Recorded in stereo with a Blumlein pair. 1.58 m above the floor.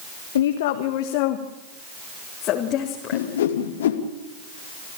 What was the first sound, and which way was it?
A woman speaking, 60° left.